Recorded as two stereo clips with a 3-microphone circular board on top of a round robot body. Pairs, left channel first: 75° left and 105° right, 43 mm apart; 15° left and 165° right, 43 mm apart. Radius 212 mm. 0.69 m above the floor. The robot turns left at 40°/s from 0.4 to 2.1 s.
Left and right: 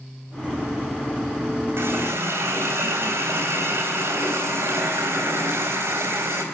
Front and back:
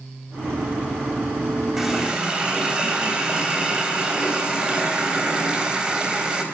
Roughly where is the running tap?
Right.